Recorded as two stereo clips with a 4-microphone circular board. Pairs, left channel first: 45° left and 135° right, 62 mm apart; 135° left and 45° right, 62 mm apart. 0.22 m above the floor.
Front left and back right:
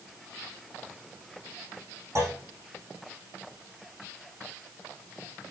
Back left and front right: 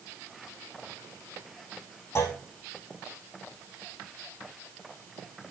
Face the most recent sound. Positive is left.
turn(degrees=180)